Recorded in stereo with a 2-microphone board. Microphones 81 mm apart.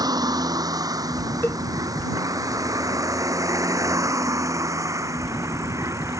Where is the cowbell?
25° left (ahead or behind).